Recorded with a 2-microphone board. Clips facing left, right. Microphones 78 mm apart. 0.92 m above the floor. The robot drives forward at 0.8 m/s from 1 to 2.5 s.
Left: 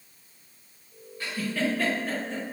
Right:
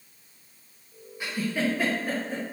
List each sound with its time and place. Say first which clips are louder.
1.2 s a giggle: right 1 dB; 15° right (ahead or behind), 0.8 m; by 2.4 s 10° right (ahead or behind), 1.1 m